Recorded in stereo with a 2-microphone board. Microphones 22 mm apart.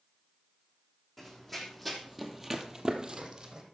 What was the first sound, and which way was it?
Running footsteps, 10° left (ahead or behind).